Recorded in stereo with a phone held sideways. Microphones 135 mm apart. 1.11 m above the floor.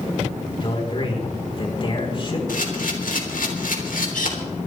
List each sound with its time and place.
0.6 s a man speaking: 40° left (ahead or behind), 4 m
2.5 s a camera shutter: 80° left, 3.5 m